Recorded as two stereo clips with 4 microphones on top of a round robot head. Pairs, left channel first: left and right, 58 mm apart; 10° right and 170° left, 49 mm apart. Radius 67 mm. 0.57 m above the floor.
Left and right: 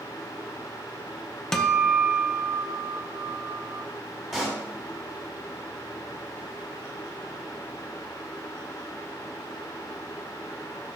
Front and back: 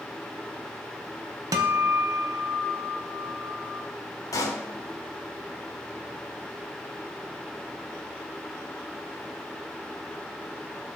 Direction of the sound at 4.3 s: 5° right.